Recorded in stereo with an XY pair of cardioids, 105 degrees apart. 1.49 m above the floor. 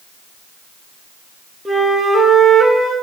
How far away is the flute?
About 0.7 m.